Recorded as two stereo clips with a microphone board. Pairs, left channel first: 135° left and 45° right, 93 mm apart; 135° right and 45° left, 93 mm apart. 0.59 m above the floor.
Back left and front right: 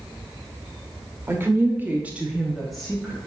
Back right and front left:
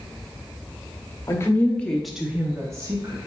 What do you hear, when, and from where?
1.3 s a woman speaking: 95° right, 0.8 m; by 3.2 s 60° left, 0.8 m